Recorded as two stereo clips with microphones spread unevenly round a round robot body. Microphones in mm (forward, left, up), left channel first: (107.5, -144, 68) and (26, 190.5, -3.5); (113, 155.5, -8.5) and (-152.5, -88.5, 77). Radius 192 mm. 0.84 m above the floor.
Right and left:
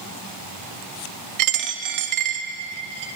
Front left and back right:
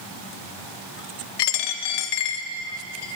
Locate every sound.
1.4 s a dropped coin: 65° left, 0.6 m